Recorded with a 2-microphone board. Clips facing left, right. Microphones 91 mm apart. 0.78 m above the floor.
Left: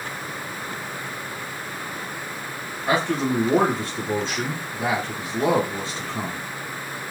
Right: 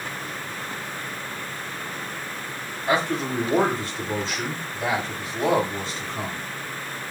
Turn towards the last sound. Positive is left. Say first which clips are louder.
# left 2 dB
turn(degrees=75)  # may be behind; listen again after turning